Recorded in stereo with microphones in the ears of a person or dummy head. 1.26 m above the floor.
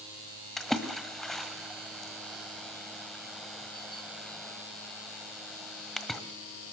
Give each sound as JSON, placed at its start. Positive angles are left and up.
{"t": 0.6, "sound": "a splash", "side_deg": 5, "distance_m": 1.7}